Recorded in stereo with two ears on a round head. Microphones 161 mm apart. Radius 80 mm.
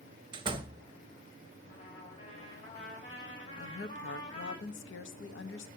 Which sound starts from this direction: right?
A door slam, at 0.3 s.